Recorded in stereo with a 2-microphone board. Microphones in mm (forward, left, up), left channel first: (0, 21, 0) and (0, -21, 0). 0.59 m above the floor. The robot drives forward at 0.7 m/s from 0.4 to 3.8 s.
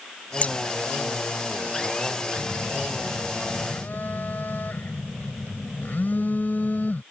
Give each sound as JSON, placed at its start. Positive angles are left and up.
{"t": 0.4, "sound": "scissors", "side_deg": 35}
{"t": 2.4, "sound": "a phone buzzing", "side_deg": 60}